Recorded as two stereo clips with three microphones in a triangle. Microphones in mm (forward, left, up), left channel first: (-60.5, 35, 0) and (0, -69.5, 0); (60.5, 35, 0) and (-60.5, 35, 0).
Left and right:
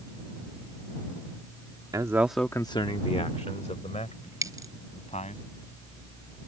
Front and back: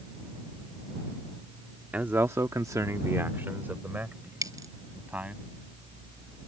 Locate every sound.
1.9 s a man speaking: 110° right; by 5.4 s 100° left
4.4 s a dropped coin: 120° right